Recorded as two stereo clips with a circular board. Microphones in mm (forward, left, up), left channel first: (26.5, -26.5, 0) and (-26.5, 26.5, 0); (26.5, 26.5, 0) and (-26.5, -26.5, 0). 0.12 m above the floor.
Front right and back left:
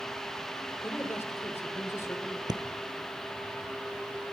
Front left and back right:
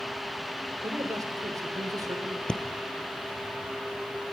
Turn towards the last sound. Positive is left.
turn(degrees=125)